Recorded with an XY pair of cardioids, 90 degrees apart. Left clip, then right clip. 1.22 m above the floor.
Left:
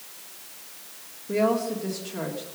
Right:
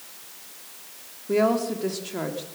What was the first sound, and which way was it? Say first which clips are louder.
A woman speaking: right 2 dB; 35° right.